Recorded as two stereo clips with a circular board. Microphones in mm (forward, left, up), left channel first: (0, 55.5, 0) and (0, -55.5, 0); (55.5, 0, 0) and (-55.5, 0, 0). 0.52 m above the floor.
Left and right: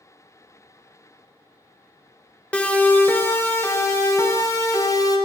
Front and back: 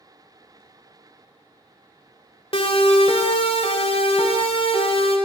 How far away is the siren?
About 2.5 m.